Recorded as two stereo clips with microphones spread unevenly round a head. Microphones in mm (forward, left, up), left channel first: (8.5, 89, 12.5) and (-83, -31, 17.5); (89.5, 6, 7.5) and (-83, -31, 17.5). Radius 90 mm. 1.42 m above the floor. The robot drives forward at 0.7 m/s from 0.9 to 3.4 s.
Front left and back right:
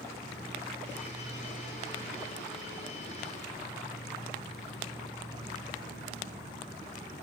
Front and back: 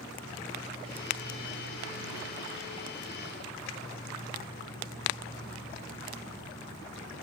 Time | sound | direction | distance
0.0 | an insect | 160° left | 6.5 m